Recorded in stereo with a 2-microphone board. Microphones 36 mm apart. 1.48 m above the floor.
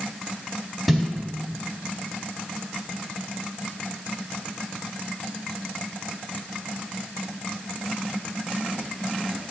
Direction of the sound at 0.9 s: Centre (ahead or behind).